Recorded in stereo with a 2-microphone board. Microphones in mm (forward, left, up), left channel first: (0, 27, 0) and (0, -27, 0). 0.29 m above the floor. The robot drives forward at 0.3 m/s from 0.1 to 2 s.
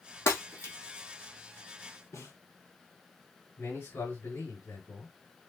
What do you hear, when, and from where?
0.3 s breaking glass: 75° left (ahead or behind), 2.5 m
2.1 s a snare drum: 70° left (ahead or behind), 4.5 m
3.6 s a man speaking: 65° left (ahead or behind), 3.5 m